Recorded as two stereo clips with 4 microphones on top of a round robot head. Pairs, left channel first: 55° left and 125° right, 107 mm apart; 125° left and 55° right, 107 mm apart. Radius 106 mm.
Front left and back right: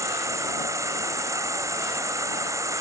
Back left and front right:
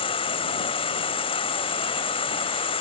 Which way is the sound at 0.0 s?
170° left.